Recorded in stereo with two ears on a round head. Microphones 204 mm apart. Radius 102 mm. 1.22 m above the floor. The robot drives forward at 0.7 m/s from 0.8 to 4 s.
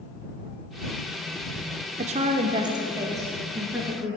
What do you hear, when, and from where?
2.0 s a woman speaking: 30° right (ahead or behind), 0.6 m; by 4.2 s 10° right (ahead or behind), 1.8 m